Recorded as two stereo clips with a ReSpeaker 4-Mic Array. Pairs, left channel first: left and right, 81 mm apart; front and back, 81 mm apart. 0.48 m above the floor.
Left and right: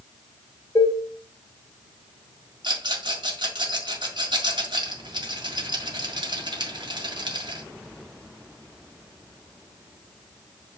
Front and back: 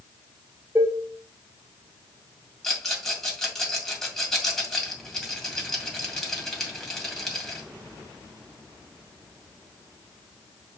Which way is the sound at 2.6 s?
85° right.